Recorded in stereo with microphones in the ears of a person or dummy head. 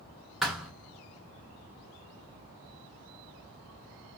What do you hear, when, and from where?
0.4 s a thud: 5° left (ahead or behind), 1.1 m